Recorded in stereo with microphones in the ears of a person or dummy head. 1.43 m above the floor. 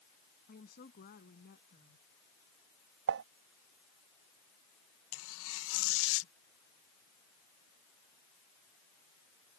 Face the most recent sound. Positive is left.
turn(degrees=80)